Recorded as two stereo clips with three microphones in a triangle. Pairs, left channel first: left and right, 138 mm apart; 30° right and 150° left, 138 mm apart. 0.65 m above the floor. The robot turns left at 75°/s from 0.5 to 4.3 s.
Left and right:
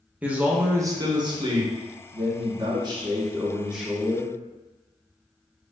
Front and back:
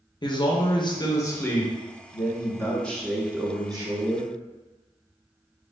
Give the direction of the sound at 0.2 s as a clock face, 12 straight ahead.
1 o'clock.